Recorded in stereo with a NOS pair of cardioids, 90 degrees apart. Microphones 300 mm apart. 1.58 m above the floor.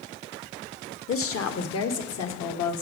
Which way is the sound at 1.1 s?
50° left.